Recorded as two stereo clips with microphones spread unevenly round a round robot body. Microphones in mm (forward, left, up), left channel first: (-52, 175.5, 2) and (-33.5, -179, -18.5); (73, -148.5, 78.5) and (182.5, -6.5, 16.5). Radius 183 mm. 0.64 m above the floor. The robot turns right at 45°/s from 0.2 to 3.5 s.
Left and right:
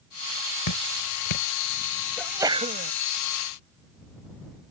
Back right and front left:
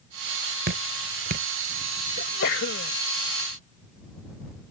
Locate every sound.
0.7 s dripping: 50° left; by 1.5 s 85° left
2.2 s a sneeze: straight behind; by 2.9 s 145° right